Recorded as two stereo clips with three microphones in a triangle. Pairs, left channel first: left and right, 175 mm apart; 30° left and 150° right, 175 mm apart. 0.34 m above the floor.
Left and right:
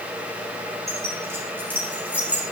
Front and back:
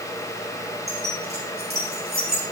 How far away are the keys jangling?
About 3.5 m.